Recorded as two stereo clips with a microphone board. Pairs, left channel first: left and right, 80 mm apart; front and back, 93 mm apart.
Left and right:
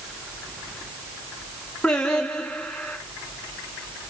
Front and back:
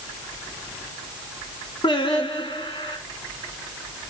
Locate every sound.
1.8 s singing: 10° left, 1.9 m